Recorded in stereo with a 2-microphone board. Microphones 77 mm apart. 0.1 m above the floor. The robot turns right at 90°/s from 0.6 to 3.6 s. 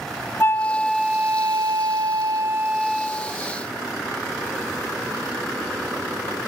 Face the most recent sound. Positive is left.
turn(degrees=60)